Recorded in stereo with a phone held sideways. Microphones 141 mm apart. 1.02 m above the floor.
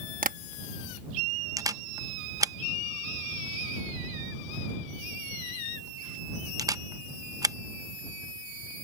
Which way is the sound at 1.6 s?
25° right (ahead or behind).